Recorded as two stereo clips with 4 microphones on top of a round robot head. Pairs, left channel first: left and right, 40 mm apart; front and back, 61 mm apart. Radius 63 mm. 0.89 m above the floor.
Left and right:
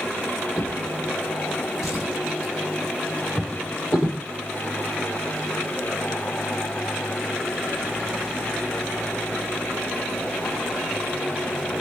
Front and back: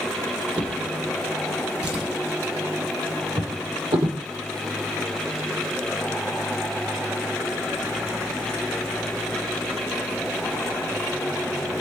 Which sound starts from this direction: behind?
A drawer, at 0.6 s.